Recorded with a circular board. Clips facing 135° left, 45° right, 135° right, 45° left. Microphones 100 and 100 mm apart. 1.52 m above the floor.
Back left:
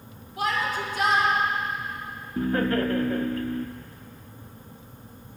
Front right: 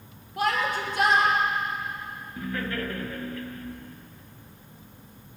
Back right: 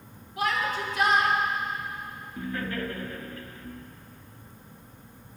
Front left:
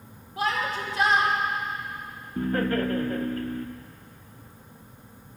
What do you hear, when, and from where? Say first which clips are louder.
0.4 s a shout: front right 1 dB, even; 15° right, 2.5 m
2.4 s laughter: back left 8 dB, front left 8 dB; 85° left, 0.7 m